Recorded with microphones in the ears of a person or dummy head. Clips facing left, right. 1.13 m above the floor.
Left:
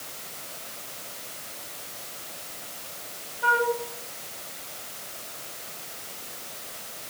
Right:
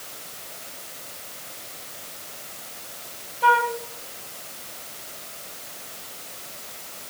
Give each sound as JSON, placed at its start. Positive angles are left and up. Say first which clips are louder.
{"t": 3.4, "sound": "a flute", "louder": "right 3 dB", "side_deg": -50, "distance_m": 1.4}